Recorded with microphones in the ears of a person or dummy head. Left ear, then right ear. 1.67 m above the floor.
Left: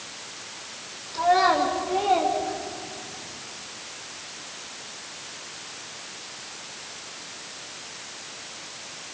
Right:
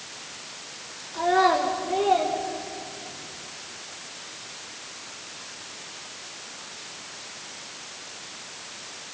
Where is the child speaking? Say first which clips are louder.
Left 1 dB; 30° right (ahead or behind), 3 m; by 3.2 s 10° right (ahead or behind), 5 m.